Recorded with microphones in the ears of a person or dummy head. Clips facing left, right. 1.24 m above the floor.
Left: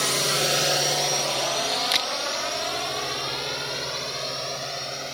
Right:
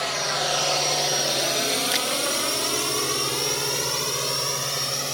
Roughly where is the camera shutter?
Centre.